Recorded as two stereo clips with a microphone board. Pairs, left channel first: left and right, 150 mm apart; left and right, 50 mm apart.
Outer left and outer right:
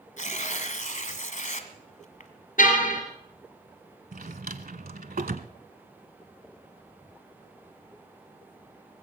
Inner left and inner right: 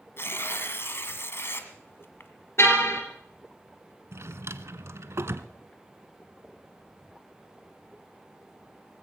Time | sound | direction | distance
0.2 | tearing paper | 55° left (ahead or behind) | 1.7 m
2.6 | a car horn | 60° left (ahead or behind) | 3 m
4.1 | a drawer | 70° right (ahead or behind) | 0.8 m